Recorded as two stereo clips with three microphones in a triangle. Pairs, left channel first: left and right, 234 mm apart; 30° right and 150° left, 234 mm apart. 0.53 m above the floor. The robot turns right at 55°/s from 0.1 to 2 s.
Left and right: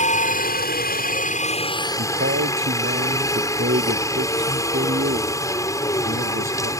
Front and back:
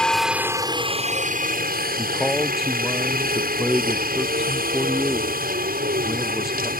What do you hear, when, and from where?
0.0 s a helicopter: 55° left; by 6.8 s 160° left
2.0 s a man speaking: 125° right; by 6.7 s 120° right